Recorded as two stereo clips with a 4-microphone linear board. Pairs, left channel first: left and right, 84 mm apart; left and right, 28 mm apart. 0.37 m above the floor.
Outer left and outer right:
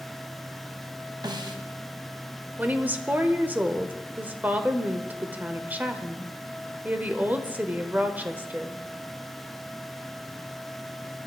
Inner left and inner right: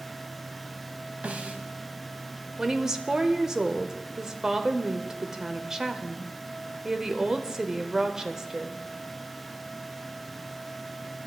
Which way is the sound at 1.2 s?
60° right (ahead or behind).